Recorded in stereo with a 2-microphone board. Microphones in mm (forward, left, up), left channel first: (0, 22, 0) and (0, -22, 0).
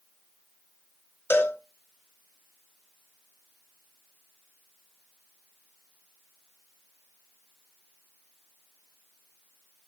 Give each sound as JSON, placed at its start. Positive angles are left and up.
{"t": 1.3, "sound": "a cowbell", "side_deg": 60, "distance_m": 0.9}